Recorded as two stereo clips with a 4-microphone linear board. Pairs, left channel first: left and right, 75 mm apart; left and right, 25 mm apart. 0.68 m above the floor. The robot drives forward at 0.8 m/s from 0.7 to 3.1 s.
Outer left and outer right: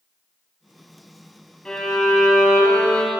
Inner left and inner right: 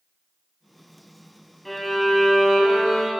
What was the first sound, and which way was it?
A violin, 10° left (ahead or behind).